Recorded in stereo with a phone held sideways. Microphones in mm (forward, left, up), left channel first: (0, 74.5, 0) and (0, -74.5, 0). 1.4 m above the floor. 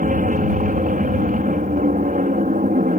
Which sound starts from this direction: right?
An aircraft, at 0.0 s.